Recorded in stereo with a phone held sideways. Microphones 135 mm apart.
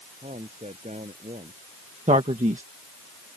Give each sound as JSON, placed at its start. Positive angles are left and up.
{"t": 0.2, "sound": "a man speaking", "side_deg": -60}
{"t": 2.1, "sound": "a man speaking", "side_deg": -65}